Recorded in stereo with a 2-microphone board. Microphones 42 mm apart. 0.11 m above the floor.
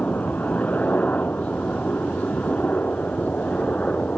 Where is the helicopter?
40° left (ahead or behind).